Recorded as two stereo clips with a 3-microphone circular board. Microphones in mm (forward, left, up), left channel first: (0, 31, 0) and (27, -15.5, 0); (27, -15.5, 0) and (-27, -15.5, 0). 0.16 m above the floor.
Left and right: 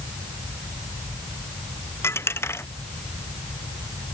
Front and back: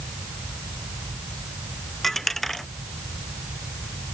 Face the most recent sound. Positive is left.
turn(degrees=85)